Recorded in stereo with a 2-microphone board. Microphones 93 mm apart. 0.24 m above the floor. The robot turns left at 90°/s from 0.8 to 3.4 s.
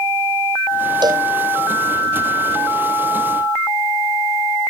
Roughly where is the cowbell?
Right.